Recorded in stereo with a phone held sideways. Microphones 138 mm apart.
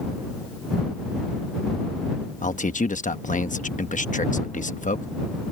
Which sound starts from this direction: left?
A man speaking, at 2.4 s.